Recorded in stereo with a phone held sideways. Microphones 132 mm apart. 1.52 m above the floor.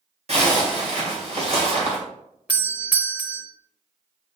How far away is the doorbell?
About 1.0 m.